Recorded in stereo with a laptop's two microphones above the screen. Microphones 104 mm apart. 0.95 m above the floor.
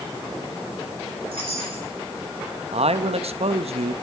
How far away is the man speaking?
About 0.8 m.